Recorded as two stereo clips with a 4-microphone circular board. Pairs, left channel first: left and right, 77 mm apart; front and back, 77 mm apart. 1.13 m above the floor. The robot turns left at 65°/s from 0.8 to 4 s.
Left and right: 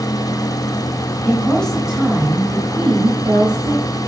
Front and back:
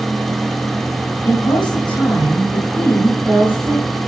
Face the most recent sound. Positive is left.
turn(degrees=-145)